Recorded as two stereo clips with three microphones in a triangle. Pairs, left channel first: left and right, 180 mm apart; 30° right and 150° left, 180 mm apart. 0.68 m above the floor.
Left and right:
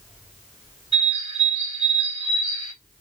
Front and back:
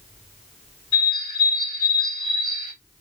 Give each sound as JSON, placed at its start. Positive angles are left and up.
{"t": 0.9, "sound": "a bird", "azimuth_deg": -145, "distance_m": 2.5}